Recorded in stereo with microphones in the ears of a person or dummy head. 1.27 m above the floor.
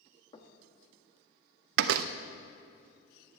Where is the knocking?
30° left (ahead or behind), 1.1 m.